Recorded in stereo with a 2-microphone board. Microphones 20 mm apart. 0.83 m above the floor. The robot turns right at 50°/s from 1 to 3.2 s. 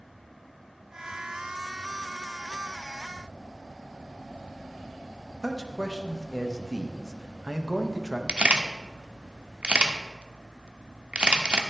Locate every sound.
5.4 s a man speaking: 25° right (ahead or behind), 0.8 m
8.3 s a camera shutter: 80° right, 0.7 m